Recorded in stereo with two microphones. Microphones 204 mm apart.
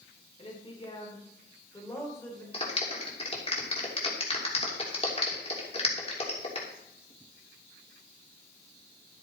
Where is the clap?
30° left (ahead or behind), 3 m.